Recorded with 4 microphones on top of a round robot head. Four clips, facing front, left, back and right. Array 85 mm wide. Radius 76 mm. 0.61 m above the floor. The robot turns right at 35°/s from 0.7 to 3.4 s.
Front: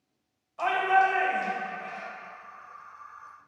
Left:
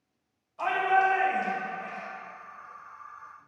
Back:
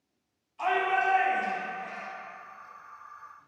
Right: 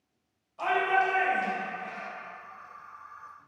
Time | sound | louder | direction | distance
0.6 | a shout | left 2 dB, front 3 dB | straight ahead | 3.5 m